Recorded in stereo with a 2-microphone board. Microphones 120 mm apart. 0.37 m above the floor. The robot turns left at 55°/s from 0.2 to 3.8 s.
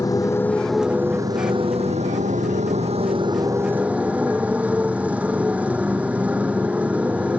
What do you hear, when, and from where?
0.0 s a motorcycle: 30° left; by 7.4 s 170° right